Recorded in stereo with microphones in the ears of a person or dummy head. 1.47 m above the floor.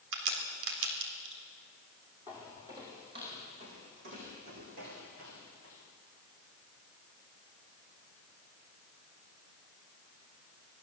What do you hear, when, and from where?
0.1 s a crack: 75° right (ahead or behind), 4 m
2.3 s footsteps: 10° right (ahead or behind), 2.5 m; by 5.8 s 55° right (ahead or behind), 5 m